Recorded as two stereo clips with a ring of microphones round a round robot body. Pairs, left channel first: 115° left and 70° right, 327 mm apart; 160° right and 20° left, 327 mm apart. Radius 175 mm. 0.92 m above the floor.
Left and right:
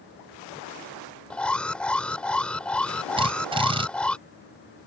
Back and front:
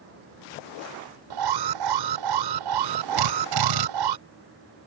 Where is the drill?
5° left.